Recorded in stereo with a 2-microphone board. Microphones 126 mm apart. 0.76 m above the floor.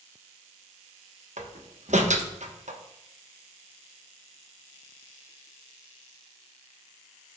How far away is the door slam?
About 1.0 m.